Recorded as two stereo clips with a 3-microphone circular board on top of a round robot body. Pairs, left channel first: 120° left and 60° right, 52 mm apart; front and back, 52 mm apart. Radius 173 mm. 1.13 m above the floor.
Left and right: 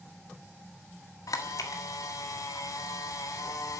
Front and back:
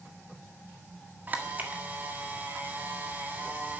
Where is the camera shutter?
120° left, 1.6 m.